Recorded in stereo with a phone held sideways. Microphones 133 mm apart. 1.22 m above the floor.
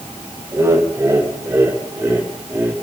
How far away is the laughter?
About 6 m.